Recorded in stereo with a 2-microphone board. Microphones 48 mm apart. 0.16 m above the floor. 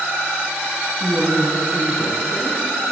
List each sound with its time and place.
1.0 s a woman speaking: 30° left (ahead or behind), 1.6 m